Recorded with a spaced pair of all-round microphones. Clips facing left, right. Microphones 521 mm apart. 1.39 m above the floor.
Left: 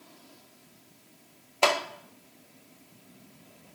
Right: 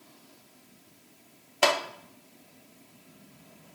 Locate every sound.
1.6 s a clap: 35° right (ahead or behind), 1.3 m